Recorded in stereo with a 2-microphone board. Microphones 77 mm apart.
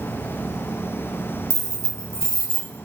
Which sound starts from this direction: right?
Keys jangling, at 1.5 s.